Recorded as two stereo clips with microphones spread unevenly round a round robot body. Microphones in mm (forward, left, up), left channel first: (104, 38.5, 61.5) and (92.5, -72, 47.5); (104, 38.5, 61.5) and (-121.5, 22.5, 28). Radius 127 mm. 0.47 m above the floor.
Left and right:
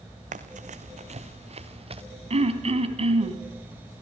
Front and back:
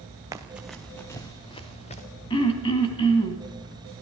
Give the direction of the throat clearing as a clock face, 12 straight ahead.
2 o'clock.